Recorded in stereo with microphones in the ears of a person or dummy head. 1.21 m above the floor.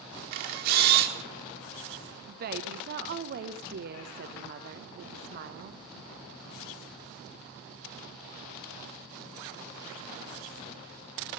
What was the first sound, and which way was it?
A camera shutter, 45° right (ahead or behind).